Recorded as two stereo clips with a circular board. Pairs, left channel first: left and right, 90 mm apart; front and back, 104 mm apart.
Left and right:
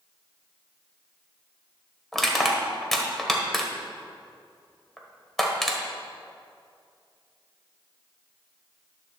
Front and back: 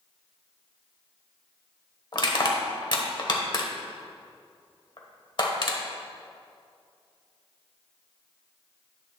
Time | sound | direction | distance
2.1 | crushing | 5° left | 1.2 m